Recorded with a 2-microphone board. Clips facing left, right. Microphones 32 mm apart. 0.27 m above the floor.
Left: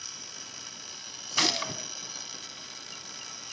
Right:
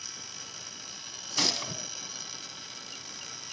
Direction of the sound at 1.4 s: 25° left (ahead or behind).